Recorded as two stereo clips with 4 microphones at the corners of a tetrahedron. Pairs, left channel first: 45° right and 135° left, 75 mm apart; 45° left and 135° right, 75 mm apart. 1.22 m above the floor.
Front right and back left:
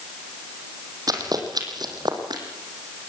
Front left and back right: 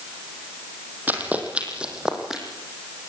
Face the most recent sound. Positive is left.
turn(degrees=140)